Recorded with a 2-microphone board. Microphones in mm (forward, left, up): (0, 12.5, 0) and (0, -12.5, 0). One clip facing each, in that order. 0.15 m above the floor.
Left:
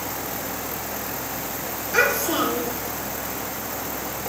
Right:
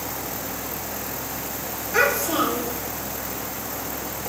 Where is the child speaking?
40° left (ahead or behind), 5.5 m.